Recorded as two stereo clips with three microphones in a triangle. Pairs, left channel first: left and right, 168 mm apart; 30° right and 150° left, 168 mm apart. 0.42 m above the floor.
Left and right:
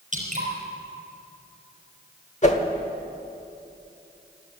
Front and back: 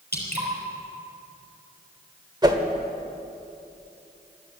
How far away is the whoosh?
About 1.1 m.